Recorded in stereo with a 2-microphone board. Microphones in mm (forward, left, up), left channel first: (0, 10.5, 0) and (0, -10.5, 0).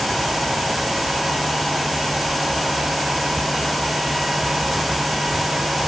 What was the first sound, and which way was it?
Only background noise.